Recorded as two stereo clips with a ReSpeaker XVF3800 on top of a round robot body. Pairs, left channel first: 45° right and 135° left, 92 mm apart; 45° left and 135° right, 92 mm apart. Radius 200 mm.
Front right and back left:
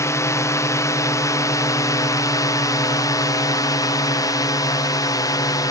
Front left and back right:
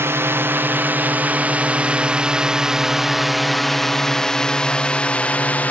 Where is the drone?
85° right; by 5.7 s 20° right.